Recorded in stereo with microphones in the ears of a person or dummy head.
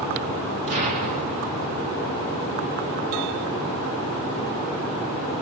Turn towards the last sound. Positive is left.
turn(degrees=-35)  # may be behind; listen again after turning